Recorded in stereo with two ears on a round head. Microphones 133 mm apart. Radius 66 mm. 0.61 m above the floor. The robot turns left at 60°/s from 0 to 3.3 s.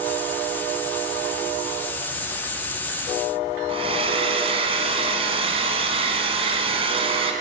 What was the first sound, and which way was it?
A hair dryer, 40° right (ahead or behind).